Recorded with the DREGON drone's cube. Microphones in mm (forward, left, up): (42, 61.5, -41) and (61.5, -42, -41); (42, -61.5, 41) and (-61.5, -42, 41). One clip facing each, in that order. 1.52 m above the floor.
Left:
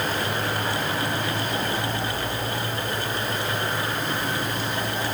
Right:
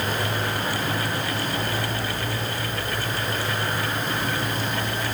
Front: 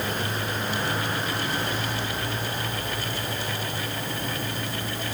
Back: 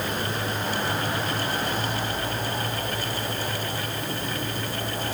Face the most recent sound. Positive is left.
No sound to turn to.